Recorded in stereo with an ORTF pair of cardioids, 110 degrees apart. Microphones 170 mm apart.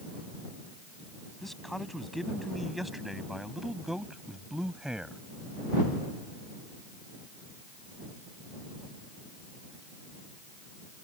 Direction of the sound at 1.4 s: Straight ahead.